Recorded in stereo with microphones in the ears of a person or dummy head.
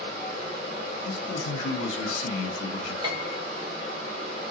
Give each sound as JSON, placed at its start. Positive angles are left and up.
{"t": 0.0, "sound": "running water", "side_deg": -45, "distance_m": 2.5}
{"t": 1.1, "sound": "a man speaking", "side_deg": 65, "distance_m": 1.5}
{"t": 3.0, "sound": "a piano", "side_deg": -25, "distance_m": 0.9}